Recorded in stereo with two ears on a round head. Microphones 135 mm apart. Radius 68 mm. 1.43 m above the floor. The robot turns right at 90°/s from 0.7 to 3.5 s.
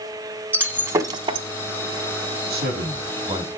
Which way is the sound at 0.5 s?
10° right (ahead or behind).